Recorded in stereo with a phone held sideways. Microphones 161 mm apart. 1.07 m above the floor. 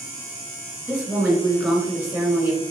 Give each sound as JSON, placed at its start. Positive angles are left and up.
{"t": 0.9, "sound": "a woman speaking", "side_deg": -5, "distance_m": 2.0}